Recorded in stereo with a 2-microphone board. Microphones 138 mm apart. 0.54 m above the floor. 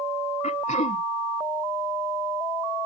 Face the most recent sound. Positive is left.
turn(degrees=65)  # may be behind; listen again after turning